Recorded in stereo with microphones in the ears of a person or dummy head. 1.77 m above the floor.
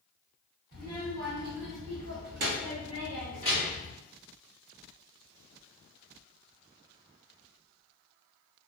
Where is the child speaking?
50° right (ahead or behind), 1.2 m; by 3.9 s 15° right (ahead or behind), 1.1 m.